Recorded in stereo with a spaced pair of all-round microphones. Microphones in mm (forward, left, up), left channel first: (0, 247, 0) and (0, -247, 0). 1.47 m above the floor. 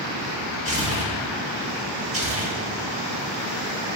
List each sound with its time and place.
0.7 s tearing paper: 30° right (ahead or behind), 5.5 m